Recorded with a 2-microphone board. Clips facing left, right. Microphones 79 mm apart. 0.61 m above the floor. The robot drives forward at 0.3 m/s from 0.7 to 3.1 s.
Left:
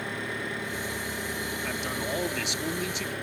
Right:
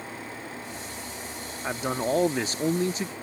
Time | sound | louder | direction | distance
0.0 | an engine running | left 5 dB | 75° left (ahead or behind) | ?
1.6 | a man speaking | right 8 dB | 35° right (ahead or behind) | ?